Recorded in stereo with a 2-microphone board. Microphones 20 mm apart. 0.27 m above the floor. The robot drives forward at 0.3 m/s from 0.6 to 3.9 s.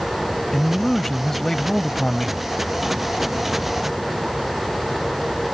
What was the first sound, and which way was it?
A man speaking, 25° left (ahead or behind).